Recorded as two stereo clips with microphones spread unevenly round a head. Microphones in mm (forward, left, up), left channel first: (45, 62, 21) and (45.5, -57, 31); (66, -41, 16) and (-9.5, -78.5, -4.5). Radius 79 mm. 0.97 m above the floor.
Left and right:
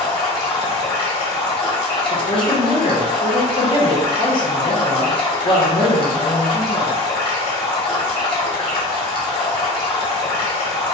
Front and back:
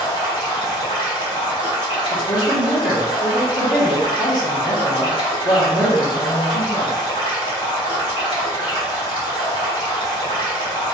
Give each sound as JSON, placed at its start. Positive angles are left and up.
{"t": 0.0, "sound": "running water", "azimuth_deg": 45, "distance_m": 1.4}
{"t": 2.1, "sound": "a woman speaking", "azimuth_deg": 75, "distance_m": 1.2}